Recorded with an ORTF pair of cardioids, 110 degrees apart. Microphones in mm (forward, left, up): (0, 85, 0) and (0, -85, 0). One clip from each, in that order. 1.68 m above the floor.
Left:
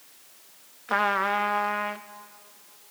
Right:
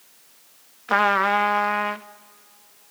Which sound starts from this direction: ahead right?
A trumpet, at 0.9 s.